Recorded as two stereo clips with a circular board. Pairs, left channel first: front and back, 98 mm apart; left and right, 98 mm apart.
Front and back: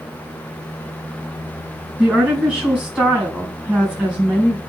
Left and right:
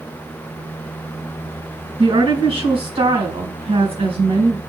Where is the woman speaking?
105° right, 4.5 m.